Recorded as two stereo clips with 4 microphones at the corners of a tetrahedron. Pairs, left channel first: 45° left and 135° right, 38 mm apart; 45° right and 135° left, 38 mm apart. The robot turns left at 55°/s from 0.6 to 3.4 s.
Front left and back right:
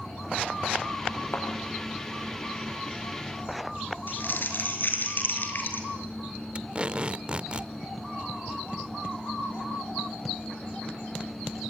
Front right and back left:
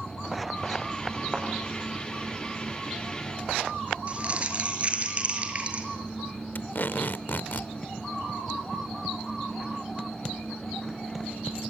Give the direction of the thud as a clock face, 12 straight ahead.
10 o'clock.